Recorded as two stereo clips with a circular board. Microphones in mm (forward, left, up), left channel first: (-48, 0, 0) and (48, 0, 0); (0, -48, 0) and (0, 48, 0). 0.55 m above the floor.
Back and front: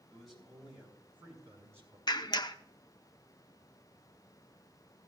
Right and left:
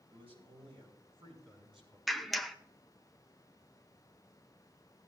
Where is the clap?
Straight behind, 0.6 m.